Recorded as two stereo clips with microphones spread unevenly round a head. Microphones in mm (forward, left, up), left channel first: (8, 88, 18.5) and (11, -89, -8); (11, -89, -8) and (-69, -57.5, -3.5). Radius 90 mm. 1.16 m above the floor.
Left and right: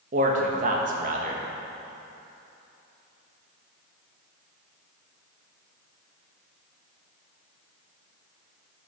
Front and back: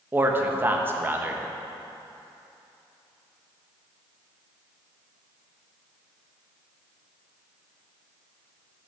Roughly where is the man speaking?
Behind right.